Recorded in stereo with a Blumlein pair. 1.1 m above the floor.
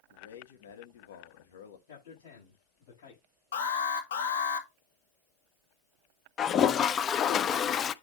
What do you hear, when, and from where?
0.1 s a man speaking: 60° left, 1.5 m
1.9 s a man speaking: 55° left, 6.5 m
3.5 s an alarm: 60° left, 1.8 m
6.4 s a toilet flushing: 25° left, 0.6 m